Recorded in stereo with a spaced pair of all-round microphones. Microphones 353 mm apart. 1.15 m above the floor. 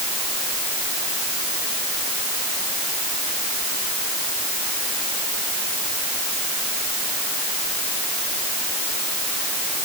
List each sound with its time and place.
Only background noise.